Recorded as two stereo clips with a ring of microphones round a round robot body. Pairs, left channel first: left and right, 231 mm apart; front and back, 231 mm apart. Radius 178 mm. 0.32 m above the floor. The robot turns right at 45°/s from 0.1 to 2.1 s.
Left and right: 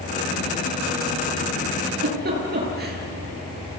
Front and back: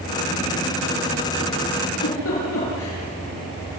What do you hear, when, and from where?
1.9 s a giggle: 55° right, 7 m; by 3.0 s 45° right, 7 m